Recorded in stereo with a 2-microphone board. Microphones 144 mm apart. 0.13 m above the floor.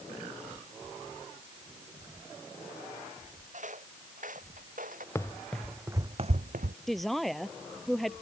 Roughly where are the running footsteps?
Centre.